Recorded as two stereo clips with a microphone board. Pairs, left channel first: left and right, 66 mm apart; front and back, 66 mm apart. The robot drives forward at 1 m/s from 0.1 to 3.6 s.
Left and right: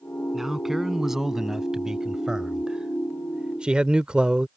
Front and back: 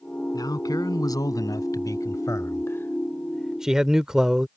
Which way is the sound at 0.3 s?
5° right.